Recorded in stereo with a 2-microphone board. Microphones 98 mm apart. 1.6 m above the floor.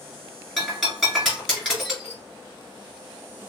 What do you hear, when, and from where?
0.6 s breaking glass: 5° left (ahead or behind), 3.5 m